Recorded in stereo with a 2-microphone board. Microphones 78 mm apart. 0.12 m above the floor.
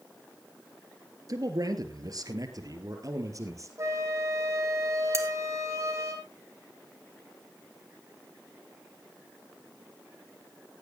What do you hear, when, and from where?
1.3 s a man speaking: 50° right (ahead or behind), 2.5 m; by 3.7 s 40° right (ahead or behind), 3.5 m
3.8 s a flute: 40° right (ahead or behind), 5 m
5.1 s cutlery clinking: 35° right (ahead or behind), 2.5 m